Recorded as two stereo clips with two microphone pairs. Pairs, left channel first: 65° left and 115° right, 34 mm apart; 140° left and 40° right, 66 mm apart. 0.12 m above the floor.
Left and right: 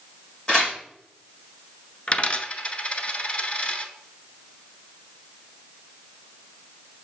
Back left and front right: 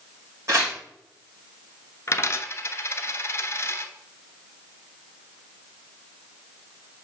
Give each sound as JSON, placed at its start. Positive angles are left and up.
{"t": 0.5, "sound": "tearing paper", "azimuth_deg": 0, "distance_m": 2.5}
{"t": 2.1, "sound": "a dropped coin", "azimuth_deg": 110, "distance_m": 0.6}